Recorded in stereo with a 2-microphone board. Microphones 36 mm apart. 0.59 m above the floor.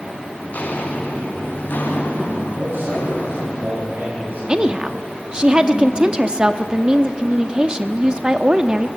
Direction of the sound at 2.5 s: 80° right.